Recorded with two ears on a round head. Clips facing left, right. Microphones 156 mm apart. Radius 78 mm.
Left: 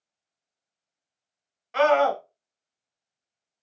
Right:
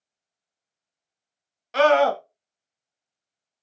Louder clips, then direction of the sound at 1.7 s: Right 2 dB; 45° right (ahead or behind).